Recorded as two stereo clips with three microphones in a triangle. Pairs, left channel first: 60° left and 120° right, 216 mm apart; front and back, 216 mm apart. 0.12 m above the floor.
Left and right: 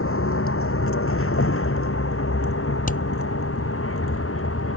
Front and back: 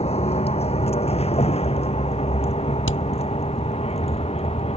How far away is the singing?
No singing in this recording.